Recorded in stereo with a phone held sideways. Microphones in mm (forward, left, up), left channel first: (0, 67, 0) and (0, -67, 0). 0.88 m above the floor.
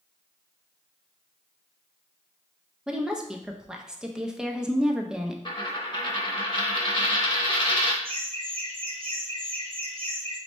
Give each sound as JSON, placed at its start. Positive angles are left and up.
{"t": 2.9, "sound": "a woman speaking", "side_deg": -5, "distance_m": 0.5}
{"t": 5.5, "sound": "a dropped coin", "side_deg": 35, "distance_m": 0.7}
{"t": 8.0, "sound": "laughter", "side_deg": -45, "distance_m": 1.2}